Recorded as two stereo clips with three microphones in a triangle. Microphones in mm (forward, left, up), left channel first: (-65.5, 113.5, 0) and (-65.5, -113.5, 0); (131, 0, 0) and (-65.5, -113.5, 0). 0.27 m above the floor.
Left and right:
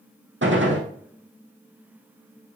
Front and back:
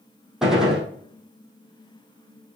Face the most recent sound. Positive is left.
turn(degrees=-60)